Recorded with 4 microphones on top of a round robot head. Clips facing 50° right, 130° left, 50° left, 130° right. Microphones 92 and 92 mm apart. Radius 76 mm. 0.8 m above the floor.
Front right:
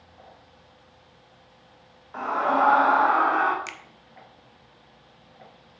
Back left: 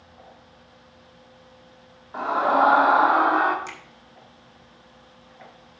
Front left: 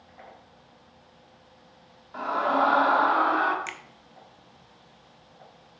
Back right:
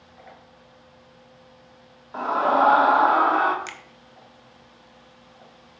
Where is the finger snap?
65° right, 0.7 m.